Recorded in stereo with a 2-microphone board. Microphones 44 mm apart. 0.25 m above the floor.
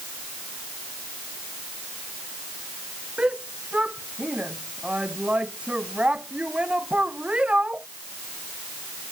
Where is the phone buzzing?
I don't hear a phone buzzing.